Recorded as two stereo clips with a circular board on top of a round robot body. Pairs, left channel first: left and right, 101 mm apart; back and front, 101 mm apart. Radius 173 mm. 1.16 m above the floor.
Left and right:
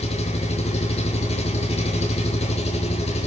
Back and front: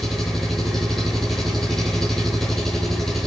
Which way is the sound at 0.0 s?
95° left.